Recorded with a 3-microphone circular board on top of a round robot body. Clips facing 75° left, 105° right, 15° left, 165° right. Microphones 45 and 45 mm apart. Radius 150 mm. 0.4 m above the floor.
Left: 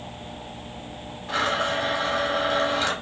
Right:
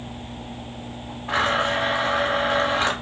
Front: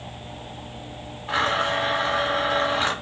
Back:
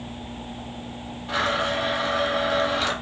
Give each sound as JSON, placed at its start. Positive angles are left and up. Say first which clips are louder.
{"t": 1.3, "sound": "a blender", "louder": "right 3 dB, front 1 dB", "azimuth_deg": -50, "distance_m": 0.7}